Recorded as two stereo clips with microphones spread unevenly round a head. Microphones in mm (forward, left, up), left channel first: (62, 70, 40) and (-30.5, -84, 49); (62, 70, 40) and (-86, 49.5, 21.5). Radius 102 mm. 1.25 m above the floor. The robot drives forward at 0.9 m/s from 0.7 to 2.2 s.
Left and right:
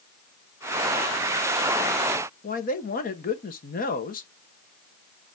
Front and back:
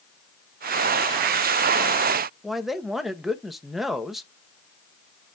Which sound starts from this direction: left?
A man speaking, at 2.4 s.